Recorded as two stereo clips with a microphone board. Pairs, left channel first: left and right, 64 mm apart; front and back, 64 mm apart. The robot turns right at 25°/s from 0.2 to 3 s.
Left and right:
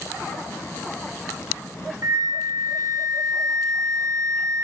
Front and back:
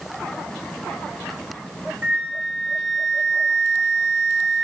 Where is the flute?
125° right, 2.5 m; by 4.6 s 100° right, 2.5 m.